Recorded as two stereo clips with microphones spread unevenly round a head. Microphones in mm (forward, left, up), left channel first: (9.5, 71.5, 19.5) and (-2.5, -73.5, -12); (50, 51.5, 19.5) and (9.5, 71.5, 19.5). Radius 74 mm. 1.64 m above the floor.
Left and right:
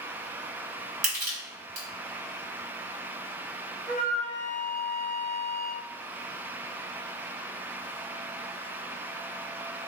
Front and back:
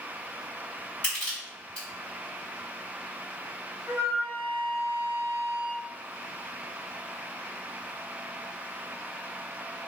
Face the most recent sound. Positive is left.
turn(degrees=-160)